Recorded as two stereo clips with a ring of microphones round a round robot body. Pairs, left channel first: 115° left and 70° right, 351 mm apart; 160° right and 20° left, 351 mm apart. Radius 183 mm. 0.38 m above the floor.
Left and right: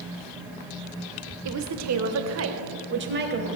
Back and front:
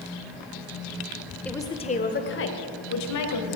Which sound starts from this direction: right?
A woman speaking, at 1.4 s.